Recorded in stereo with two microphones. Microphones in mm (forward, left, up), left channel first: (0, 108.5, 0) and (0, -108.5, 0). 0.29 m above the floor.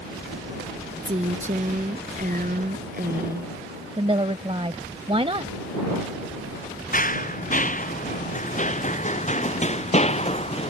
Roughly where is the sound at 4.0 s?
Right.